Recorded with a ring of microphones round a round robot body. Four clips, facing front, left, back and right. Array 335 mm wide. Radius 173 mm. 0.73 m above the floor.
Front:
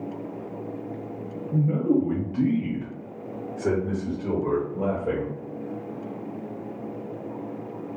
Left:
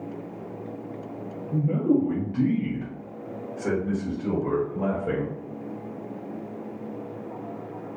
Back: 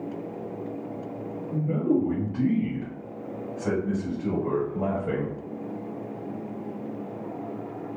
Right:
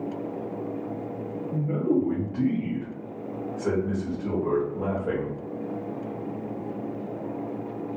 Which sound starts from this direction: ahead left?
A man speaking, at 1.5 s.